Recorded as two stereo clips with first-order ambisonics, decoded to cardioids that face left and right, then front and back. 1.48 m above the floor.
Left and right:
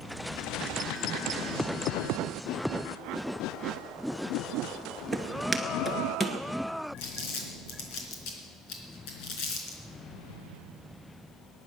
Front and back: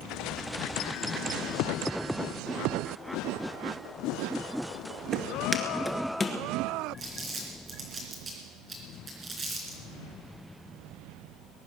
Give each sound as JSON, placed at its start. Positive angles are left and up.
{"t": 5.1, "sound": "footsteps", "azimuth_deg": -155, "distance_m": 1.5}
{"t": 7.0, "sound": "crumpling", "azimuth_deg": 110, "distance_m": 3.5}